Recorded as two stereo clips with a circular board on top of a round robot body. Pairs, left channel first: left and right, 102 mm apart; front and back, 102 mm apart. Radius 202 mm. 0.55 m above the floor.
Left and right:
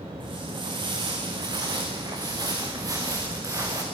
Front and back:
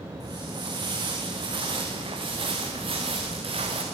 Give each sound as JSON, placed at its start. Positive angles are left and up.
{"t": 0.2, "sound": "footsteps", "azimuth_deg": -130, "distance_m": 4.5}